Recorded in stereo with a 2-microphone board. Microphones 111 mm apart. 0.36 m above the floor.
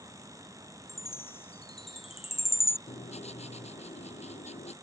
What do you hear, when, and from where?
0.9 s a chime: 60° left (ahead or behind)
2.9 s writing: 80° left